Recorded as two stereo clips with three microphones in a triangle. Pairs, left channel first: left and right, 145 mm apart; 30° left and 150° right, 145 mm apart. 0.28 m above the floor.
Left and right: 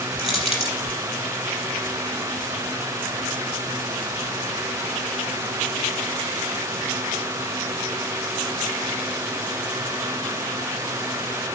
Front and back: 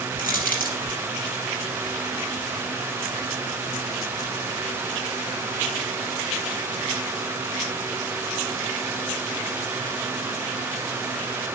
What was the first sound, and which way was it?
Crushing, 45° left.